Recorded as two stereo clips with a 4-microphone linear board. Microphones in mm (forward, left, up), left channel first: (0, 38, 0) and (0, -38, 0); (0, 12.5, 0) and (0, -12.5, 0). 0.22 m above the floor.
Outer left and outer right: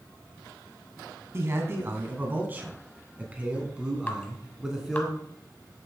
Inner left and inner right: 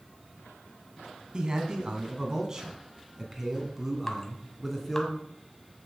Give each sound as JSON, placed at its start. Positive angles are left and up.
{"t": 1.3, "sound": "a man speaking", "side_deg": -35, "distance_m": 2.0}
{"t": 4.1, "sound": "dripping", "side_deg": 20, "distance_m": 1.5}